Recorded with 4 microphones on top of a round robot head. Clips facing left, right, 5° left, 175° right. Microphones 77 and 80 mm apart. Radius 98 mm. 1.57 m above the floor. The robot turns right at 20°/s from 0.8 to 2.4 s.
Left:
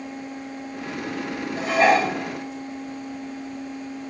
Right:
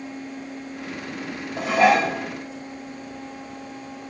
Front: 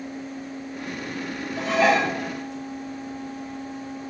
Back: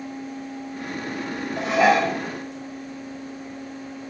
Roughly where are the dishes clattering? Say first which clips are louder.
Right 1 dB, back 2 dB; behind right.